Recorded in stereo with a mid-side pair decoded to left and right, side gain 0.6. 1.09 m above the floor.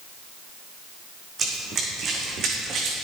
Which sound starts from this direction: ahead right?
Running footsteps, at 1.4 s.